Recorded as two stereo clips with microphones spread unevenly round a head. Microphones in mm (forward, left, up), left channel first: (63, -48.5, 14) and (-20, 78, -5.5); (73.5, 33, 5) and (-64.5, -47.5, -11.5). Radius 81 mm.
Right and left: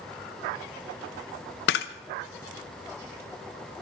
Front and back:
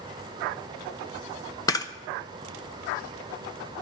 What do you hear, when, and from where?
1.7 s a camera shutter: 40° right, 0.8 m